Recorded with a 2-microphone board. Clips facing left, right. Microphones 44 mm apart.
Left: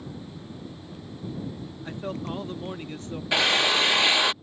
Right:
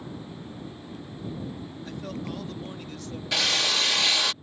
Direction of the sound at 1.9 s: 30° left (ahead or behind).